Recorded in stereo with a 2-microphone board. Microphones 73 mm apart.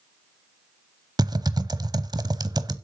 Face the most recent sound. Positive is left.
turn(degrees=-70)  # may be behind; listen again after turning